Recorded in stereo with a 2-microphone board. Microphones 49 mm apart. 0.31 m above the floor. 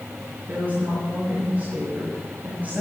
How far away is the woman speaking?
About 4.5 m.